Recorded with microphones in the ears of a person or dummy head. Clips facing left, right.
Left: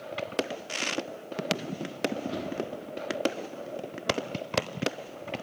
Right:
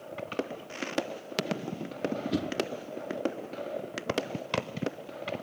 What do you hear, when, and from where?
2.3 s a whoosh: 25° right (ahead or behind), 1.2 m